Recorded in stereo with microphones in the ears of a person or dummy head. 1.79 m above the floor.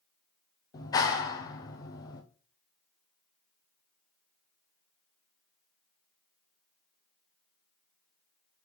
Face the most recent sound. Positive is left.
turn(degrees=25)  # may be behind; listen again after turning